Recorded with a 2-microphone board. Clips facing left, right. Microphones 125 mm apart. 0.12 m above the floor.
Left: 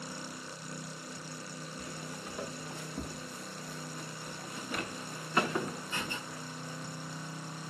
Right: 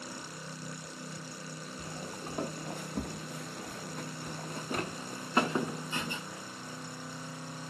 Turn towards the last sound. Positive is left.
turn(degrees=-10)  # may be behind; listen again after turning